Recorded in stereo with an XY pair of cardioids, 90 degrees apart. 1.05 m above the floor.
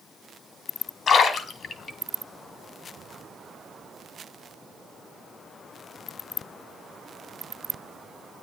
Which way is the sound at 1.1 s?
65° left.